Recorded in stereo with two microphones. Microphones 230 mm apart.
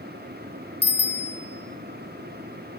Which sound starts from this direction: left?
A bicycle bell, at 0.8 s.